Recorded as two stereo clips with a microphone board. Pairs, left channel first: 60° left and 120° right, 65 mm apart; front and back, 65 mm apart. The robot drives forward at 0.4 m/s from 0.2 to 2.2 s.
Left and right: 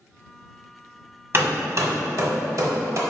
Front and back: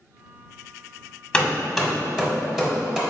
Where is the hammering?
75° right, 0.8 m; by 3.0 s 105° right, 0.8 m.